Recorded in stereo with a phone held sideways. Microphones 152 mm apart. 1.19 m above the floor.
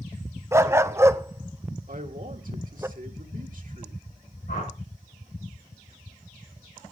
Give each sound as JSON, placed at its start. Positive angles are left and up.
{"t": 0.5, "sound": "a dog barking", "side_deg": -20, "distance_m": 0.6}
{"t": 1.9, "sound": "a man speaking", "side_deg": -65, "distance_m": 1.5}
{"t": 4.5, "sound": "a whoosh", "side_deg": 85, "distance_m": 7.0}